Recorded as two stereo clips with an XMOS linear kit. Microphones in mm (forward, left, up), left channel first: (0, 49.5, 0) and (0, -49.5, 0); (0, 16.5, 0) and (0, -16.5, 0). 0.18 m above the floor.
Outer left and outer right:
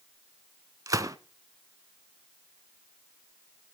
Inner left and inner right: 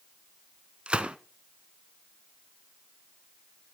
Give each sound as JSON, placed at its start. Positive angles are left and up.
{"t": 0.9, "sound": "a gunshot", "side_deg": -35, "distance_m": 0.5}